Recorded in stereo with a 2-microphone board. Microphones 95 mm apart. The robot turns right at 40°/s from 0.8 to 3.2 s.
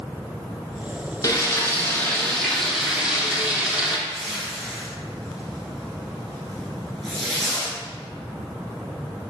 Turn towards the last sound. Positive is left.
turn(degrees=5)  # may be behind; listen again after turning